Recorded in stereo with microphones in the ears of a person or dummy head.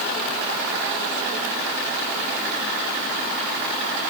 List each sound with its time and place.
Only background noise.